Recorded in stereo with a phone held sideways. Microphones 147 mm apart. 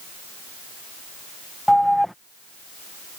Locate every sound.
1.7 s an alarm: centre (ahead or behind)